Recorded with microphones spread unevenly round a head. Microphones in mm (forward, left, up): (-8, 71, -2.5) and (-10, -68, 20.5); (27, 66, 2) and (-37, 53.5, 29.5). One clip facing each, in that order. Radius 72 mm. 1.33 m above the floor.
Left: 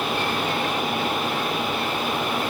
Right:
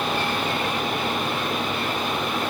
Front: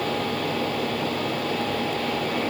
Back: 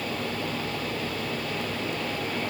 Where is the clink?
I don't hear a clink.